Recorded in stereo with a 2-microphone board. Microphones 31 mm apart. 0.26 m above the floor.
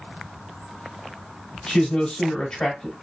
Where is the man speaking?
20° left (ahead or behind), 1.0 m.